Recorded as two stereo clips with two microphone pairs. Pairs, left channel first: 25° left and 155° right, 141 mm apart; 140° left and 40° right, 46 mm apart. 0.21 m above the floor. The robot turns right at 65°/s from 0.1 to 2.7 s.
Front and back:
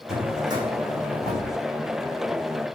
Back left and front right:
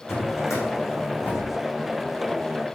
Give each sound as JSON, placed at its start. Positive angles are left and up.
{"t": 0.1, "sound": "a drawer", "azimuth_deg": 115, "distance_m": 5.5}